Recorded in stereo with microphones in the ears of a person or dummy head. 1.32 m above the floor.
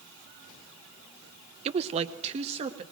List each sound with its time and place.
1.6 s a woman speaking: 35° right (ahead or behind), 0.6 m